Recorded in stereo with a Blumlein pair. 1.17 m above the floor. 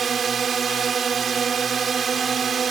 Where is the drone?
20° right.